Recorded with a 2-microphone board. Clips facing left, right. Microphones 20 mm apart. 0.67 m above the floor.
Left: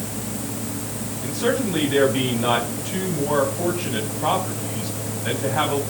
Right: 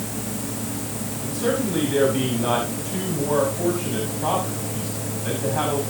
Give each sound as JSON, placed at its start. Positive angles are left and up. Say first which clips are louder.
{"t": 1.2, "sound": "a man speaking", "louder": "left 1 dB", "side_deg": 20, "distance_m": 5.0}